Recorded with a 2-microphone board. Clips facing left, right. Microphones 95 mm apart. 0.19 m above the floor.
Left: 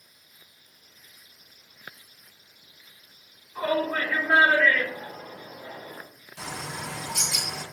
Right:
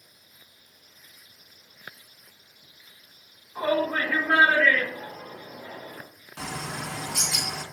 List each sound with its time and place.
3.5 s a shout: 20° right (ahead or behind), 1.4 m; by 6.0 s 25° left (ahead or behind), 1.9 m
6.4 s a bird: 60° right (ahead or behind), 0.6 m